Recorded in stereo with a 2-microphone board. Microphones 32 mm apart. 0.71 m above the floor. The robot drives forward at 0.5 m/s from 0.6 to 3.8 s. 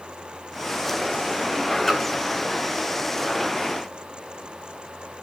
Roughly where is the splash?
Centre.